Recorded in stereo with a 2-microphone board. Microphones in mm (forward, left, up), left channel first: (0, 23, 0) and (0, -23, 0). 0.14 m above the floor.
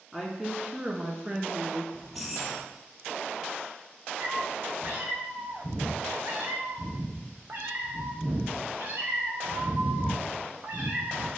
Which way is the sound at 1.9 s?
Centre (ahead or behind).